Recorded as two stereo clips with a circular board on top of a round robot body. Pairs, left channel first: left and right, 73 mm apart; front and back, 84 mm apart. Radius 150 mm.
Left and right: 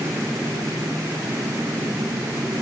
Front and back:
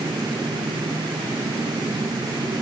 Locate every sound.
Only background noise.